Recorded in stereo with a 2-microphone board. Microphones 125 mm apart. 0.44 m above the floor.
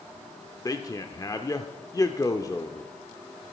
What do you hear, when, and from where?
0.7 s a man speaking: 25° left (ahead or behind), 0.8 m